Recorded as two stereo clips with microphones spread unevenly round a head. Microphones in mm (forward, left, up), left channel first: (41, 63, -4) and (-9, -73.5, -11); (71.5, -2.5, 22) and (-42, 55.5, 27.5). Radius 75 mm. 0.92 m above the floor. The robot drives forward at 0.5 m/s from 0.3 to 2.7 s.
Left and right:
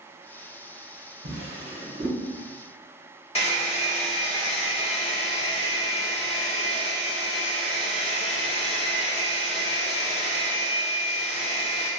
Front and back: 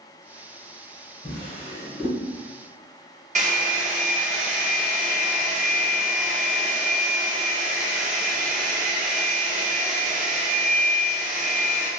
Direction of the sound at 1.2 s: 120° right.